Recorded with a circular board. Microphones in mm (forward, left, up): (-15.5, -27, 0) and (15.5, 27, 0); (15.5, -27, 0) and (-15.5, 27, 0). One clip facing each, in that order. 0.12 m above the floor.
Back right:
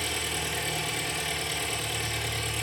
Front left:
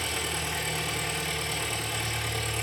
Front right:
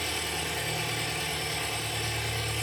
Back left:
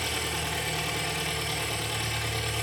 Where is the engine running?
110° left, 3 m.